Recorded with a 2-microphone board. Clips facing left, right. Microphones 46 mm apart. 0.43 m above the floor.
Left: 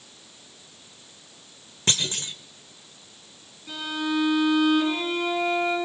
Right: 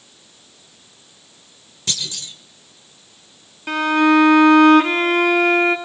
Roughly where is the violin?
Right.